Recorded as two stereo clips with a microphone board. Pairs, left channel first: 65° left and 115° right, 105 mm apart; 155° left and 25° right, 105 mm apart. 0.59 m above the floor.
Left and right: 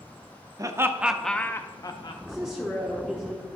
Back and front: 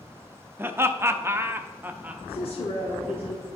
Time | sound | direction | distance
0.6 | laughter | 80° right | 0.7 m
2.3 | a woman speaking | 165° left | 1.3 m